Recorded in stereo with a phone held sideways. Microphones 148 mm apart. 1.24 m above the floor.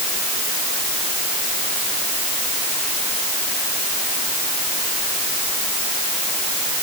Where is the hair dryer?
I don't hear a hair dryer.